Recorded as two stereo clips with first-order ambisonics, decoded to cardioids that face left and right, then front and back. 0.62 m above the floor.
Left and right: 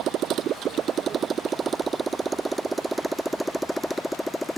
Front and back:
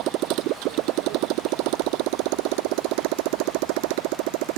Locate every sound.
0.0 s a motorcycle: 140° right; by 4.6 s 175° left